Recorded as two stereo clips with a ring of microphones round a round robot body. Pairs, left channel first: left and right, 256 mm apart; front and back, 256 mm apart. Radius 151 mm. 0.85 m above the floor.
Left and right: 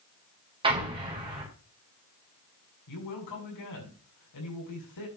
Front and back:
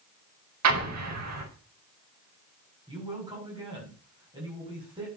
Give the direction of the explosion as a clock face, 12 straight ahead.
5 o'clock.